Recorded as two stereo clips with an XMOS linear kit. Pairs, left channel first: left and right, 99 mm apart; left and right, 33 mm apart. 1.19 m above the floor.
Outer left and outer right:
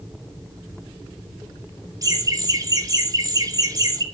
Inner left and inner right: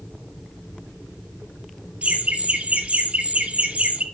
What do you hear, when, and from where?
2.0 s laughter: 40° right (ahead or behind), 2.5 m